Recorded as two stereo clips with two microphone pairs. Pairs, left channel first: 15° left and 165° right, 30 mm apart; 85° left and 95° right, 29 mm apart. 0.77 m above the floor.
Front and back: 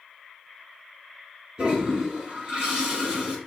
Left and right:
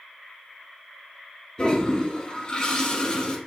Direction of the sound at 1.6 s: 140° left.